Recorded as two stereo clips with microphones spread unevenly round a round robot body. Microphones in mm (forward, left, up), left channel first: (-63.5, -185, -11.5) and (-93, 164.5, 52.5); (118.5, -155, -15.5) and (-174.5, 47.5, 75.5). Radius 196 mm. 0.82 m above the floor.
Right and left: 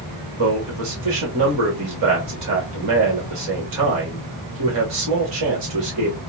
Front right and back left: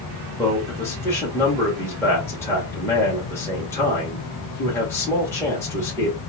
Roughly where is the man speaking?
Ahead left.